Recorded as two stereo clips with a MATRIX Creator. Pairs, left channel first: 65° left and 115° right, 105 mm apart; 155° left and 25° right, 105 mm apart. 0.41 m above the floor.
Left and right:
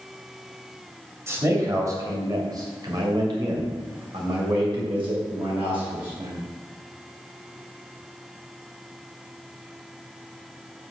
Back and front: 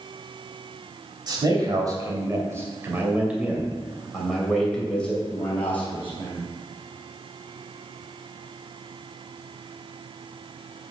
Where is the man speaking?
55° right, 2.5 m; by 6.5 s 140° right, 3 m.